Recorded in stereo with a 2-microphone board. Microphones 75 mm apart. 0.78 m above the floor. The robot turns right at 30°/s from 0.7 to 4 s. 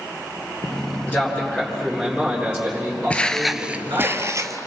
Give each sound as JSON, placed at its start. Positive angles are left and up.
{"t": 1.1, "sound": "a man speaking", "azimuth_deg": 150, "distance_m": 9.5}
{"t": 3.1, "sound": "footsteps", "side_deg": 20, "distance_m": 0.8}